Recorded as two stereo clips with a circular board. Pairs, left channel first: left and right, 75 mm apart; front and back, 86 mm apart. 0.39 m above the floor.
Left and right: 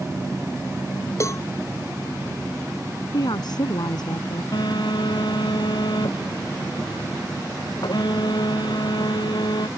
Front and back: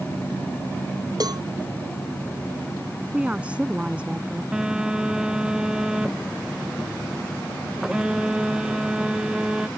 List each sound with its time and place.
1.2 s a cowbell: 140° left
3.1 s a woman speaking: 105° left
4.5 s a phone buzzing: 100° left